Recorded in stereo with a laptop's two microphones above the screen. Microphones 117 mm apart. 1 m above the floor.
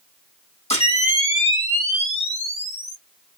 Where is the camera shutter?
60° left (ahead or behind), 1.2 m.